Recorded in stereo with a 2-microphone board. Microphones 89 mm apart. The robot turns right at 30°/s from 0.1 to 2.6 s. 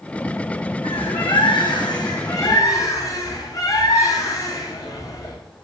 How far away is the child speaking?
No child speaking in this recording.